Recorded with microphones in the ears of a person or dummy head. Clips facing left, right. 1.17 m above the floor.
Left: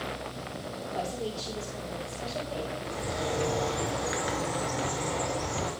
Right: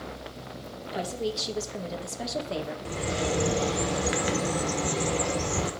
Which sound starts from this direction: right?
A bird, at 2.9 s.